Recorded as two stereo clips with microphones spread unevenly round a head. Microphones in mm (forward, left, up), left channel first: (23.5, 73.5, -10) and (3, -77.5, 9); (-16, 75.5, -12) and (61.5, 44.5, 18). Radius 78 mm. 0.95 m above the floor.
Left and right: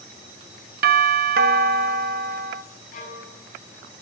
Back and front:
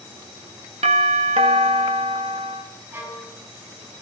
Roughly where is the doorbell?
Right.